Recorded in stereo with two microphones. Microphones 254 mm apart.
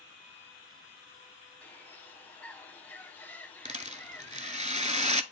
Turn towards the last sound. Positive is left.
turn(degrees=-30)  # may be behind; listen again after turning